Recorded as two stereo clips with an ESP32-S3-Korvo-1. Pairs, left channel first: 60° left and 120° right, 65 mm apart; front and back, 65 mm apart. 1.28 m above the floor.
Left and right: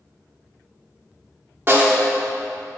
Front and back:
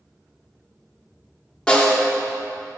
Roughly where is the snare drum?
Right.